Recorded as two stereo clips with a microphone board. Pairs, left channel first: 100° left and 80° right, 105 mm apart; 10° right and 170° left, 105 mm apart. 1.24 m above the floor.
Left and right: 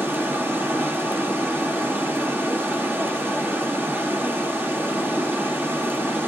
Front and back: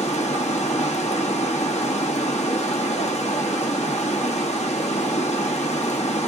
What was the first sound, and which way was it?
Running water, 5° right.